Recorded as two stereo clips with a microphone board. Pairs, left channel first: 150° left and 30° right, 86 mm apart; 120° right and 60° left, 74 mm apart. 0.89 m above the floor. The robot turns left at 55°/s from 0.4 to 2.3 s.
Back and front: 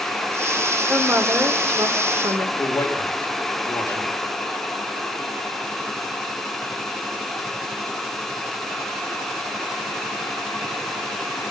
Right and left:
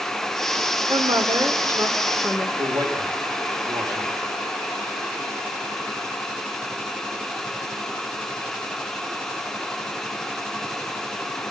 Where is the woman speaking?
55° left, 2.5 m; by 2.5 s 20° right, 2.5 m.